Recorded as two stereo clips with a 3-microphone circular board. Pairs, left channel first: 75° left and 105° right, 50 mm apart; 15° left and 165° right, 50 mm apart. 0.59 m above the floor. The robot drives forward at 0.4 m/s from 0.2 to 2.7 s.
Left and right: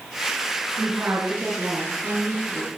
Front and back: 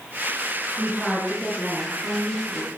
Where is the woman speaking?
60° right, 8.5 m; by 2.7 s 65° right, 8 m.